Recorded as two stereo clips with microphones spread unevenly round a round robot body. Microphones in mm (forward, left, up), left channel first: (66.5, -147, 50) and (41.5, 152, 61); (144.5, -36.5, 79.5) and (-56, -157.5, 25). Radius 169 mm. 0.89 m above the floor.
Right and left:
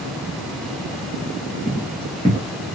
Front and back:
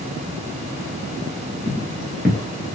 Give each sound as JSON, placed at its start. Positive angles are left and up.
{"t": 1.6, "sound": "footsteps", "azimuth_deg": 15, "distance_m": 0.9}